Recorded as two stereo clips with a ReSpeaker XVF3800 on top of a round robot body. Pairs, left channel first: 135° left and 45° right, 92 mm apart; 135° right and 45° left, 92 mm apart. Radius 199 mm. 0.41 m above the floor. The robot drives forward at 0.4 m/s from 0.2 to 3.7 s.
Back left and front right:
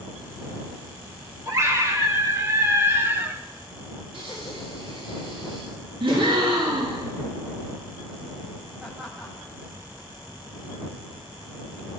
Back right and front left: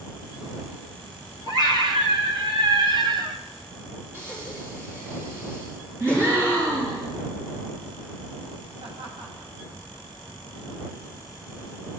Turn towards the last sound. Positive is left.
turn(degrees=40)